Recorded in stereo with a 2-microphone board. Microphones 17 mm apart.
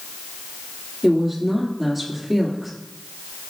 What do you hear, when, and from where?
1.0 s a woman speaking: 10° right (ahead or behind), 3.5 m